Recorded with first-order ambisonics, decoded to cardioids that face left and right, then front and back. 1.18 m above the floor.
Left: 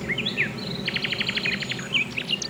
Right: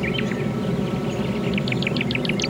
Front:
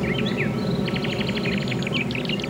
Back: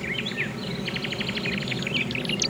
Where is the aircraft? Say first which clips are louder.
Even, front 3 dB; 35° right; by 2.5 s 70° right.